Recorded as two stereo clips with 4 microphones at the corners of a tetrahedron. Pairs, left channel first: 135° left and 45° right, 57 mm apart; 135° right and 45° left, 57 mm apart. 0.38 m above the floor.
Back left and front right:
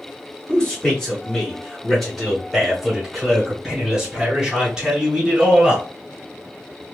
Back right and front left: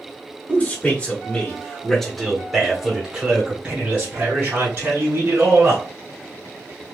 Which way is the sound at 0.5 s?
160° right.